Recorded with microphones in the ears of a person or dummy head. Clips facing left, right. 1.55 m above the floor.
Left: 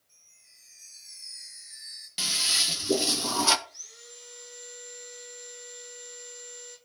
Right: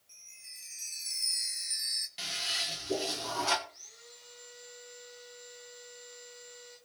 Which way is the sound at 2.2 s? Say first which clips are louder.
Left 3 dB; 65° left (ahead or behind).